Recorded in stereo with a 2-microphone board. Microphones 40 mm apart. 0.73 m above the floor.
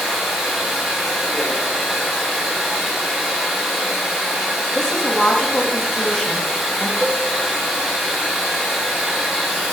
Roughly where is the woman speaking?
Centre.